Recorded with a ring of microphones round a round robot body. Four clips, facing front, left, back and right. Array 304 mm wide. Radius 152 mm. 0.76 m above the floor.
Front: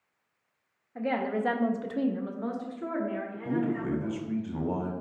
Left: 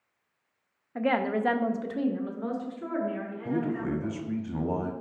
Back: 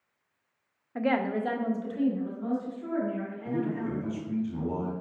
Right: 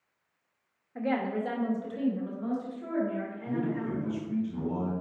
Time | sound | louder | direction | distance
0.9 | a woman speaking | left 3 dB, back 2 dB | 135° left | 0.6 m
3.5 | a man speaking | left 3 dB, front 2 dB | 65° left | 1.0 m